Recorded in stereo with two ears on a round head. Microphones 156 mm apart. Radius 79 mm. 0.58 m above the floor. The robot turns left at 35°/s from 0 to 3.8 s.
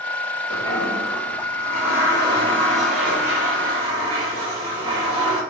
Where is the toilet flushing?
85° left, 4.5 m; by 5.4 s 30° right, 4.5 m.